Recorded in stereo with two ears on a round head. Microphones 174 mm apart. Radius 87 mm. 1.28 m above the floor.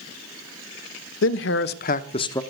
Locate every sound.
1.2 s a man speaking: 70° left (ahead or behind), 1.2 m; by 2.4 s 15° left (ahead or behind), 0.8 m